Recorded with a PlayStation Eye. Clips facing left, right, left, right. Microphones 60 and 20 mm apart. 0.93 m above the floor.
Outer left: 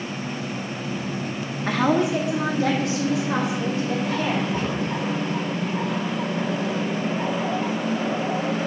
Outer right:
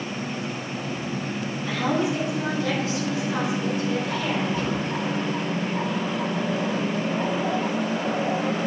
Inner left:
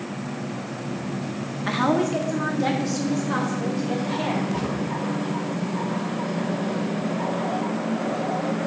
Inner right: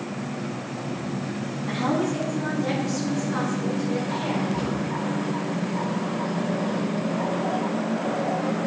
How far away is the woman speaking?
About 1.2 m.